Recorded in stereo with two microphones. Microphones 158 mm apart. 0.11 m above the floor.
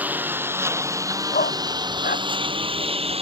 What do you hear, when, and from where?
0.0 s a lawn mower: 10° right (ahead or behind); by 3.2 s 40° right (ahead or behind)
1.3 s a dog barking: 65° left (ahead or behind)